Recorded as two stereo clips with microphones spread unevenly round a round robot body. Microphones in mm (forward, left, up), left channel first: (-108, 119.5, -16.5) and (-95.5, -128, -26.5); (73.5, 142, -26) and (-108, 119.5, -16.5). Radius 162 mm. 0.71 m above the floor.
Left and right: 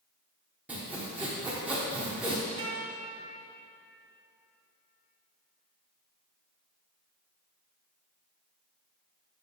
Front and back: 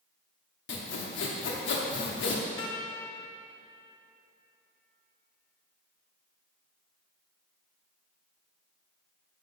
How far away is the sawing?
About 0.8 m.